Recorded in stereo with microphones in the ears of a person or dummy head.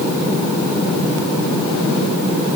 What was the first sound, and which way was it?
Only background noise.